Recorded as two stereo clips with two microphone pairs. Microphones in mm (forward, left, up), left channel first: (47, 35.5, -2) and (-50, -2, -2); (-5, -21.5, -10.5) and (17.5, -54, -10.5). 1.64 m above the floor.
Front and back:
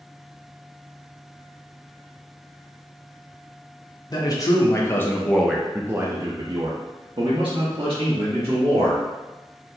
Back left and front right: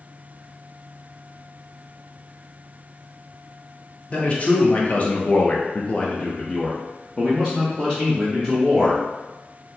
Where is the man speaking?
70° left, 1.0 m; by 9.0 s 135° right, 1.7 m.